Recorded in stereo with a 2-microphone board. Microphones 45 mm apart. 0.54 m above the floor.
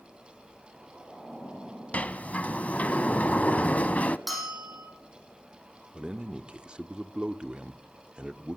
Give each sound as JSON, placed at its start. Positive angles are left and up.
{"t": 1.9, "sound": "a sliding door", "side_deg": 35, "distance_m": 0.7}
{"t": 4.3, "sound": "a bell", "side_deg": 0, "distance_m": 8.0}
{"t": 5.9, "sound": "a man speaking", "side_deg": -25, "distance_m": 1.0}